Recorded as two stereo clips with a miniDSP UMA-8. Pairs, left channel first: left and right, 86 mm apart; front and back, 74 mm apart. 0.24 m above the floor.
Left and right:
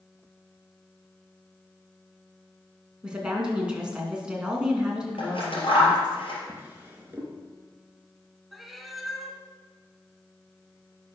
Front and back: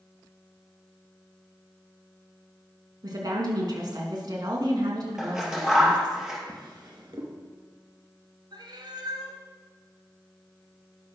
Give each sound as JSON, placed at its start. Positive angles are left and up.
{"t": 3.0, "sound": "a woman speaking", "azimuth_deg": -170, "distance_m": 3.0}
{"t": 5.2, "sound": "scissors", "azimuth_deg": 100, "distance_m": 3.5}
{"t": 6.5, "sound": "a drawer", "azimuth_deg": -155, "distance_m": 2.0}
{"t": 8.5, "sound": "a cat meowing", "azimuth_deg": 180, "distance_m": 1.2}